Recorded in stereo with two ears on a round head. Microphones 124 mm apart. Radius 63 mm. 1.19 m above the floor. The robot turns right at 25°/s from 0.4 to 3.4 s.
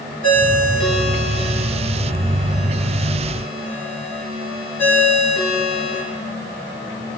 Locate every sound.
0.2 s a ringtone: 60° right (ahead or behind), 7.5 m; by 6.0 s 15° left (ahead or behind), 7.5 m